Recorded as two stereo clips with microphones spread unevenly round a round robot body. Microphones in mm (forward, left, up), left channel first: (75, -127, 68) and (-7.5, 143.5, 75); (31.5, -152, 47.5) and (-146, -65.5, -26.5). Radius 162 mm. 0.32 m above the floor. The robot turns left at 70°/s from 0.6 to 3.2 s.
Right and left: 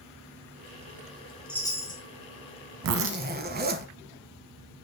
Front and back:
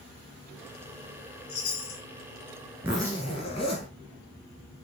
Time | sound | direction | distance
1.5 | a chime | 15° left | 1.9 m
2.8 | a zipper | 75° left | 1.0 m